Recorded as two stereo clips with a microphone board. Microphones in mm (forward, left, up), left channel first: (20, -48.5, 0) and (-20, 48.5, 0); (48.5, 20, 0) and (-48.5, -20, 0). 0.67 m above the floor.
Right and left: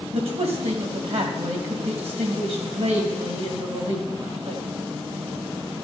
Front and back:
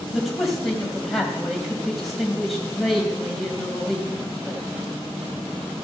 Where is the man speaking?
110° left, 3 m.